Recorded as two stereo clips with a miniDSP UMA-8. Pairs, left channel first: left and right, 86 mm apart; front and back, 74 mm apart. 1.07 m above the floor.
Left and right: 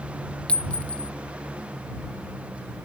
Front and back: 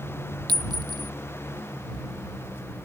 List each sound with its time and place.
0.5 s a clink: 165° left